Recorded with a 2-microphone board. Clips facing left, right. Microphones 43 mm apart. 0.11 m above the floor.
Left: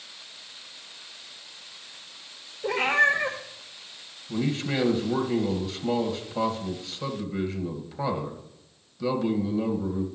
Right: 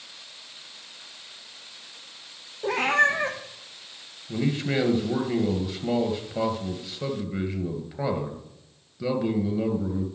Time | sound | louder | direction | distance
2.6 | a cat meowing | even | 65° right (ahead or behind) | 2 m
4.3 | a man speaking | right 1 dB | 20° right (ahead or behind) | 2 m